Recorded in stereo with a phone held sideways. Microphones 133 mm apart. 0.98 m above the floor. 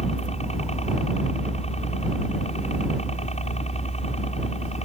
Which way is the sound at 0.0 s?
55° left (ahead or behind).